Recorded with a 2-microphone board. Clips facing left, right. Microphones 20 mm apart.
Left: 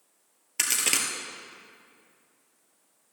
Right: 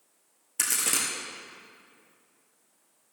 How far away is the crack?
About 1.7 m.